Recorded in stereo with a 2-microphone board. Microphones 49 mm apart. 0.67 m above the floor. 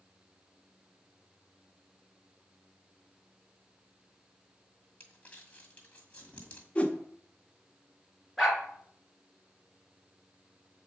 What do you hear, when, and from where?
5.0 s crumpling: 25° left (ahead or behind), 1.9 m
6.8 s a whoosh: 25° left (ahead or behind), 1.1 m
8.4 s a dog barking: centre (ahead or behind), 2.5 m